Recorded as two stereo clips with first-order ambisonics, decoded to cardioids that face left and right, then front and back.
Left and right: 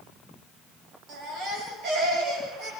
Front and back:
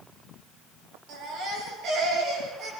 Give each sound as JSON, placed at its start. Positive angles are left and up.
{"t": 1.1, "sound": "a baby crying", "azimuth_deg": -140, "distance_m": 7.0}